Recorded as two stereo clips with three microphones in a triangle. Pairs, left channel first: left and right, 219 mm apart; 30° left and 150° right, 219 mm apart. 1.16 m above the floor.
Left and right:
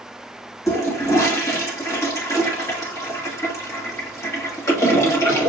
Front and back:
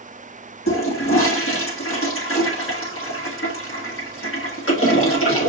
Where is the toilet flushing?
15° left, 1.5 m.